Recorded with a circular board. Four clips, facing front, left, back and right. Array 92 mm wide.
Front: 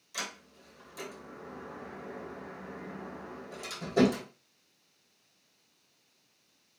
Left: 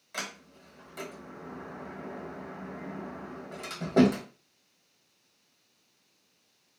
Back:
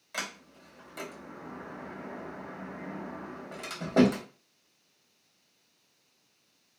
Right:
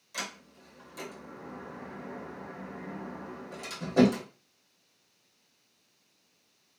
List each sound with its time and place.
0.1 s a sliding door: 150° left, 0.9 m